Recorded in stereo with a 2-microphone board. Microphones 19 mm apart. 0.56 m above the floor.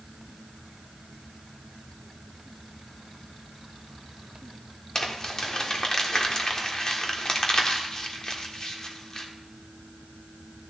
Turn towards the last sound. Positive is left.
turn(degrees=30)  # may be behind; listen again after turning